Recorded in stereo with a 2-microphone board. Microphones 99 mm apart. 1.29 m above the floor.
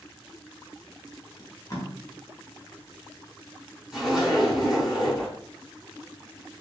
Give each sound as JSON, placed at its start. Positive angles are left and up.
{"t": 1.4, "sound": "tape being pulled", "side_deg": 35, "distance_m": 1.1}
{"t": 3.9, "sound": "a zipper", "side_deg": -5, "distance_m": 1.9}